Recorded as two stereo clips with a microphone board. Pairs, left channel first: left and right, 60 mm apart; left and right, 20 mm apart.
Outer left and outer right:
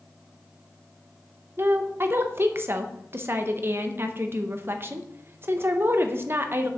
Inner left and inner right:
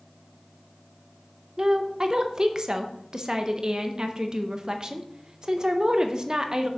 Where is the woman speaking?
40° right (ahead or behind), 0.7 m.